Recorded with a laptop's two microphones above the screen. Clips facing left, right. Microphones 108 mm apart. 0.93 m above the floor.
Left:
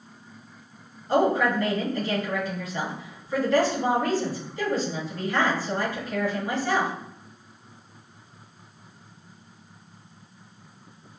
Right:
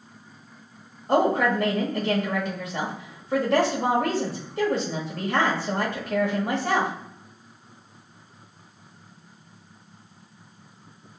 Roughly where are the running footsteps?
No running footsteps in this recording.